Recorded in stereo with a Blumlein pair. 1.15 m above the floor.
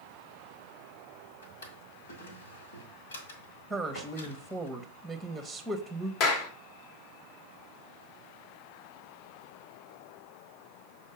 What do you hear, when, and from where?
1.4 s a drawer: 65° left, 1.8 m
3.7 s a woman speaking: straight ahead, 1.0 m
6.2 s a clap: 40° left, 1.3 m